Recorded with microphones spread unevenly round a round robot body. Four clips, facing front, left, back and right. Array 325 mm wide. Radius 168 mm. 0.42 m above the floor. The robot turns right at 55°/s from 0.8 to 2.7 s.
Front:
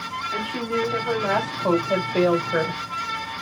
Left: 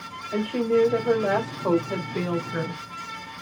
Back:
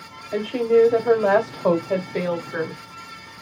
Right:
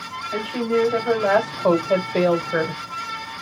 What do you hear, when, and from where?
0.3 s a woman speaking: 160° right, 1.8 m; by 2.8 s 55° right, 1.8 m